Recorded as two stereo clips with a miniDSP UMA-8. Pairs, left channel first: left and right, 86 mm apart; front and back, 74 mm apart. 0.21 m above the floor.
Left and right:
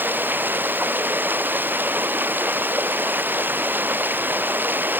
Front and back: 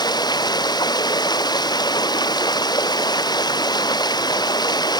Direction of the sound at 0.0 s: 25° right.